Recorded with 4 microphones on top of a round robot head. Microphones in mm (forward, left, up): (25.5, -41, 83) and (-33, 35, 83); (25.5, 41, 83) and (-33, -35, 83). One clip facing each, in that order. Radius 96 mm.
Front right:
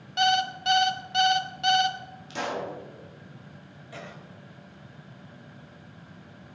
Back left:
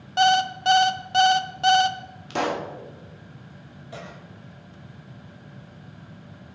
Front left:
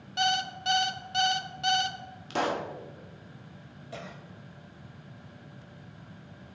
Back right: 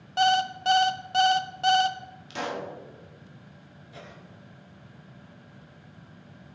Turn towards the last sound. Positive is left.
turn(degrees=60)